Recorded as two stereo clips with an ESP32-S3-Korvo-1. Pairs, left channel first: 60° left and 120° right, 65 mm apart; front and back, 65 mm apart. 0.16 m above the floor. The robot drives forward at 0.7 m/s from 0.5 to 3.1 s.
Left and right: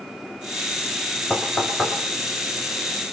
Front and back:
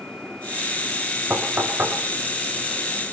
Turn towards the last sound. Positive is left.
turn(degrees=130)